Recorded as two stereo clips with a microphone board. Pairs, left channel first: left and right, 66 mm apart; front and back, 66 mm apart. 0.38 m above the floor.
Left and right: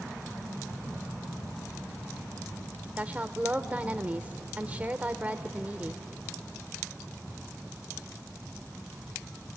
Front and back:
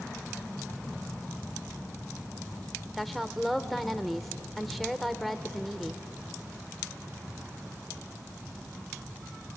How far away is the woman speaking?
About 0.9 m.